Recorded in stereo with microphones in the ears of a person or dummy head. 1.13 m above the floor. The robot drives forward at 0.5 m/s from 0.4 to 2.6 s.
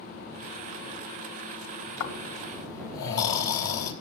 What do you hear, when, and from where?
2.0 s snoring: 70° left (ahead or behind), 4 m; by 3.9 s 65° left (ahead or behind), 4 m